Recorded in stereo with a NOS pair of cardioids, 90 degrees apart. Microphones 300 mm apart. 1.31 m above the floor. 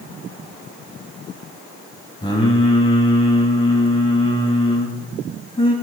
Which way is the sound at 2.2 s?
20° left.